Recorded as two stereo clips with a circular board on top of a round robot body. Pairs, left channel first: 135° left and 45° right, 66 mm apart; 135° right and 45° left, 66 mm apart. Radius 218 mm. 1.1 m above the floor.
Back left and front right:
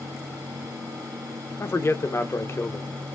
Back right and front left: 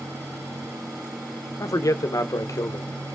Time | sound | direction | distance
1.6 | a man speaking | 170° right | 1.3 m